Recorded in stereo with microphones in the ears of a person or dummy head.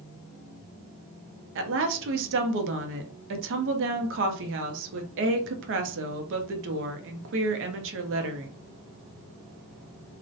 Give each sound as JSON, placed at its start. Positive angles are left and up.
{"t": 1.6, "sound": "a woman speaking", "side_deg": -65, "distance_m": 0.5}